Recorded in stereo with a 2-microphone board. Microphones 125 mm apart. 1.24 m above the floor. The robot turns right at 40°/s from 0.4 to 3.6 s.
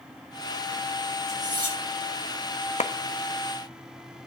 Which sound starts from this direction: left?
A clap, at 2.8 s.